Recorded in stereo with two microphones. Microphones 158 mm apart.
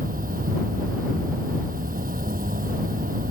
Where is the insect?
65° right (ahead or behind).